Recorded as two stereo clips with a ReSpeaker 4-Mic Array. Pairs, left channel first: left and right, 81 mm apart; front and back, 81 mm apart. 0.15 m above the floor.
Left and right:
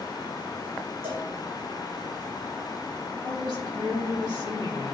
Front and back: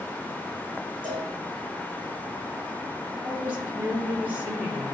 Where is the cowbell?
150° right, 4 m.